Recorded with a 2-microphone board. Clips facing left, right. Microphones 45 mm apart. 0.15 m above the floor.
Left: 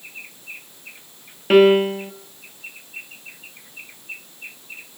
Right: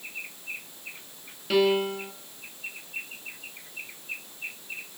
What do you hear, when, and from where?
1.5 s a piano: 45° left (ahead or behind), 1.7 m